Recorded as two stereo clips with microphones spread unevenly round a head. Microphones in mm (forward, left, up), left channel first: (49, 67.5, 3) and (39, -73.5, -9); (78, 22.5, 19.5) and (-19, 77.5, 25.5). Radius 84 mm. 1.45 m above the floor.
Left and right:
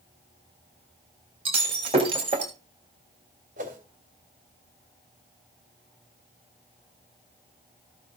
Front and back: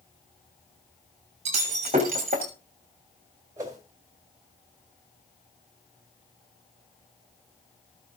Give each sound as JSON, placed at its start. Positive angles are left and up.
{"t": 1.4, "sound": "breaking glass", "azimuth_deg": -155, "distance_m": 3.0}
{"t": 3.6, "sound": "a whoosh", "azimuth_deg": -140, "distance_m": 3.0}